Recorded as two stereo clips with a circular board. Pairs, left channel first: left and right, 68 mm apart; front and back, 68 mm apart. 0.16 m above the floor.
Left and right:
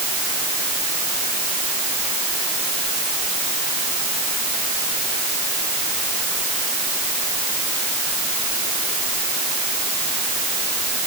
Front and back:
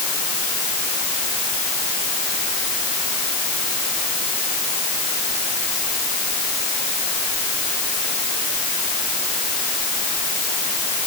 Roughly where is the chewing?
I don't hear chewing.